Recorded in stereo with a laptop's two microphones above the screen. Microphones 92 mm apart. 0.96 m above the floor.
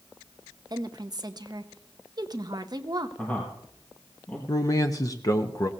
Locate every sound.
0.7 s a woman speaking: 40° right (ahead or behind), 0.7 m
3.2 s a man speaking: 15° left (ahead or behind), 1.6 m
4.5 s a man speaking: 35° left (ahead or behind), 0.9 m